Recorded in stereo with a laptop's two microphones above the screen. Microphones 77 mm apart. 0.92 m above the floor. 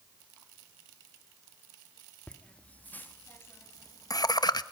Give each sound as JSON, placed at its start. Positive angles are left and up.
{"t": 2.3, "sound": "laughter", "side_deg": 15, "distance_m": 1.7}